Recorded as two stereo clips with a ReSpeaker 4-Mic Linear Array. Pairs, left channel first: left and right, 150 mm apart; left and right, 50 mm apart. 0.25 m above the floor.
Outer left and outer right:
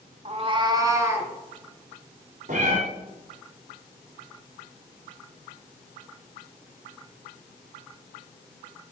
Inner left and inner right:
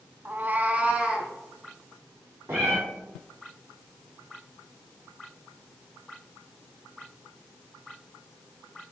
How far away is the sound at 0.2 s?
About 0.8 m.